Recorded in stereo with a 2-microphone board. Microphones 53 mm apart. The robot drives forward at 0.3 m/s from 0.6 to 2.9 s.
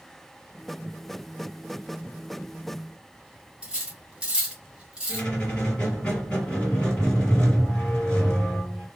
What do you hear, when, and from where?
3.6 s cutlery clinking: 20° right (ahead or behind), 0.8 m
5.1 s a squeak: 15° left (ahead or behind), 2 m